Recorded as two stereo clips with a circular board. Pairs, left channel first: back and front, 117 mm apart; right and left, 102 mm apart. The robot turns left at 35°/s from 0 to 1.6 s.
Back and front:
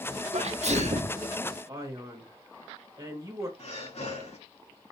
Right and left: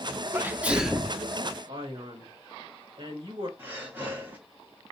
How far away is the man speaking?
About 2 m.